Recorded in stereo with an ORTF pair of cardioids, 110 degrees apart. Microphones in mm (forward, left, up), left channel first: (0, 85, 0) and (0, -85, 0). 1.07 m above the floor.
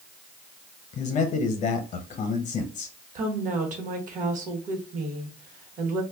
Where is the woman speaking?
55° right, 1.0 m.